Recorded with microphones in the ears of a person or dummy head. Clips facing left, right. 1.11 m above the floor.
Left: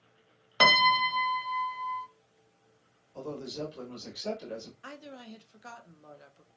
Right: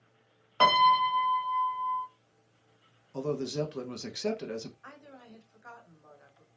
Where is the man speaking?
75° right (ahead or behind), 1.1 m.